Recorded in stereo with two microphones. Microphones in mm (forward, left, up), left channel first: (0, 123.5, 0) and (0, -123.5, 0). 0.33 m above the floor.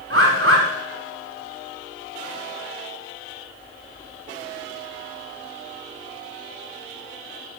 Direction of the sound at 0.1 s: 60° right (ahead or behind).